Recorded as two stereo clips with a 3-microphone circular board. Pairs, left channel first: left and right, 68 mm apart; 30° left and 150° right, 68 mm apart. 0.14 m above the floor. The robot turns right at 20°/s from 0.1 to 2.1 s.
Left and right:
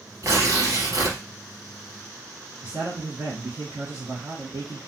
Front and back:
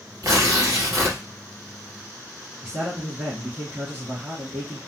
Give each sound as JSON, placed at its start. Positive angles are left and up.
{"t": 0.2, "sound": "tearing paper", "azimuth_deg": -125, "distance_m": 2.0}
{"t": 2.6, "sound": "a man speaking", "azimuth_deg": -100, "distance_m": 2.0}